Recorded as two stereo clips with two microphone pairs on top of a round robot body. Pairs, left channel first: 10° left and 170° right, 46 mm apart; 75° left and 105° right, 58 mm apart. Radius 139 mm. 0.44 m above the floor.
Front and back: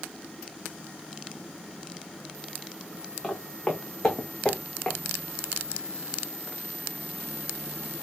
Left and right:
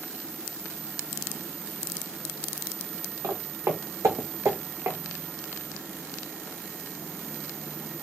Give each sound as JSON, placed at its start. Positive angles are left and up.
{"t": 3.2, "sound": "footsteps", "azimuth_deg": -75, "distance_m": 2.5}